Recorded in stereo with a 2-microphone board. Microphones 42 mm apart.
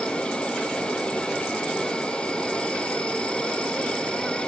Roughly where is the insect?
Left.